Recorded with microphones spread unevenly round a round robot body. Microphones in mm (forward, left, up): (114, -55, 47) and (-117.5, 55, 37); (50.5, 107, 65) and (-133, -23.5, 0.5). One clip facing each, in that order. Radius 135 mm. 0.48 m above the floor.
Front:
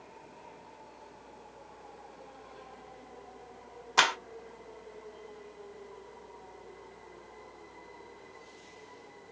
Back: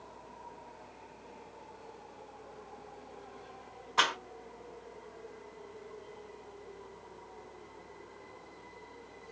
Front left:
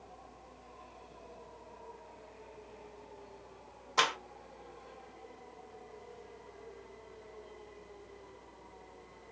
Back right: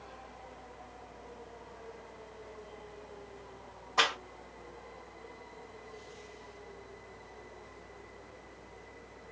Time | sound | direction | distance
4.0 | a clap | 35° right | 1.7 m